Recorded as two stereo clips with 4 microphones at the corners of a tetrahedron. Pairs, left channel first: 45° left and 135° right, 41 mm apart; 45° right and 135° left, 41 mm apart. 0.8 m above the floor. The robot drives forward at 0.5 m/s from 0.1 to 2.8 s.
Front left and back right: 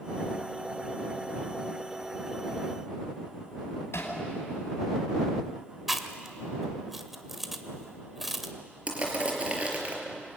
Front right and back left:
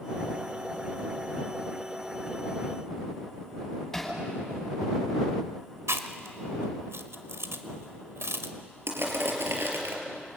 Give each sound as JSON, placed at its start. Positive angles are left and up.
{"t": 3.9, "sound": "hammering", "azimuth_deg": 35, "distance_m": 5.5}
{"t": 5.9, "sound": "chewing", "azimuth_deg": 140, "distance_m": 1.6}
{"t": 8.9, "sound": "crushing", "azimuth_deg": 165, "distance_m": 5.0}